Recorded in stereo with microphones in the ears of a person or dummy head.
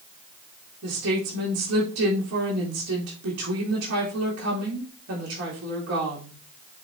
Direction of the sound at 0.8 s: 80° right.